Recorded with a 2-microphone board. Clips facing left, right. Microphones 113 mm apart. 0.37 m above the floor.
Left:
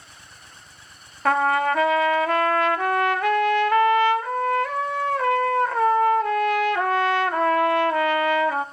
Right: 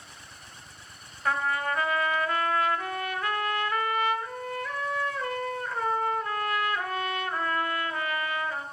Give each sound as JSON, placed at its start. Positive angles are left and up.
{"t": 1.2, "sound": "a trumpet", "side_deg": 75, "distance_m": 0.6}